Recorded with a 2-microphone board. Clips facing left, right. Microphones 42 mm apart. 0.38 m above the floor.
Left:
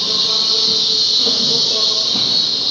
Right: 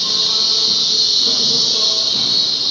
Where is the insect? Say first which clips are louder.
Even; 30° left (ahead or behind), 1.4 m.